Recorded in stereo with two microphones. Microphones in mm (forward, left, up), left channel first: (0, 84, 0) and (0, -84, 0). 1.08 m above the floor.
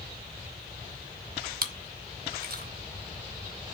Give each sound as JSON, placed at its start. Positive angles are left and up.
{"t": 1.6, "sound": "chewing", "side_deg": -65, "distance_m": 1.1}